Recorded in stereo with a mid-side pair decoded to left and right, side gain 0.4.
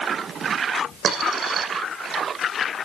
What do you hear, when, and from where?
1.0 s a dropped coin: 65° right, 6.5 m